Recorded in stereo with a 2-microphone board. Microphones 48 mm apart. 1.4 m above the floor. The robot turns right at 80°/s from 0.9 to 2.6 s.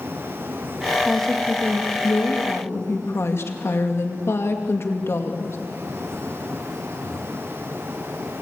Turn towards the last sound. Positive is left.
turn(degrees=120)